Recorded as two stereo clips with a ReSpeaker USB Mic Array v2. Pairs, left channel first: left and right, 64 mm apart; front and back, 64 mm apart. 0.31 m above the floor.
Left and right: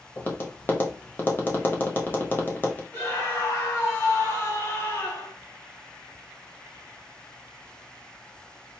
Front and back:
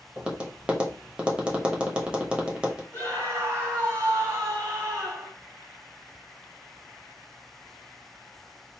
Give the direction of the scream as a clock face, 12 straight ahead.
7 o'clock.